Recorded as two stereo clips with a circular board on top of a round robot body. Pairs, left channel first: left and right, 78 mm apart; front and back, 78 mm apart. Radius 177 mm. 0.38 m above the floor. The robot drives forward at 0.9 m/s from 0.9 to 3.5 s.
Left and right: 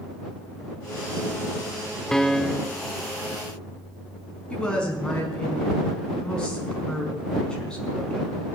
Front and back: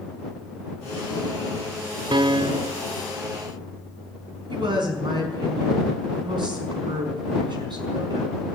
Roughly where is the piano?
Behind.